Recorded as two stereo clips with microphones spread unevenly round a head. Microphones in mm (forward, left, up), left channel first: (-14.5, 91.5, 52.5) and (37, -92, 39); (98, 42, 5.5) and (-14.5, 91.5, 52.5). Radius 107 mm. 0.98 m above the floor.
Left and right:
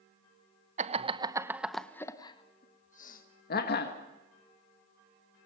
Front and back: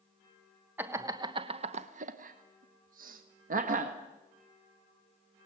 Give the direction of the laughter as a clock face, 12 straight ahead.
4 o'clock.